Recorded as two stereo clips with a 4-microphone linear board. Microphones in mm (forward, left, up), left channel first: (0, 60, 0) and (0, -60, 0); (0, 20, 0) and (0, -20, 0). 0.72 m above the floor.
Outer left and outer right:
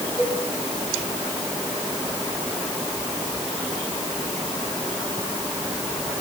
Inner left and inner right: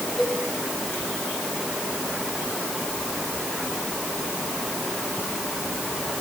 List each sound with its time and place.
0.2 s a cowbell: 25° right (ahead or behind), 8 m